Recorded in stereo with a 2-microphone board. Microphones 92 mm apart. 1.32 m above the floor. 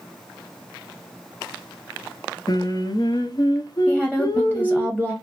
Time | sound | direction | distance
2.5 | singing | 45° left (ahead or behind) | 0.7 m
3.9 | a woman speaking | 10° left (ahead or behind) | 0.8 m